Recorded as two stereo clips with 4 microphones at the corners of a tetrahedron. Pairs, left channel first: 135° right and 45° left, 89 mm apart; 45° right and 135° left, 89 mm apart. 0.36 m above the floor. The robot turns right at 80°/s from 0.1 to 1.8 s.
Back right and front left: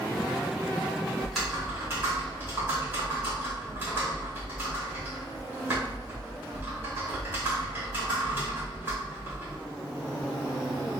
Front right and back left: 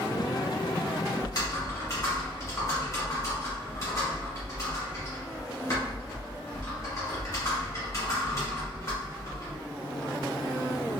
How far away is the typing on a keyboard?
About 1.4 m.